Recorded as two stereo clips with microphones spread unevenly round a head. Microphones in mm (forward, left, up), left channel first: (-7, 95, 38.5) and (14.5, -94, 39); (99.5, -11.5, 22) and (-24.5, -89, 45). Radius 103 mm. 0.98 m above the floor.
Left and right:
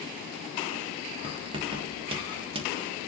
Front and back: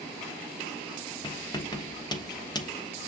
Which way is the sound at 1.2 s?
25° right.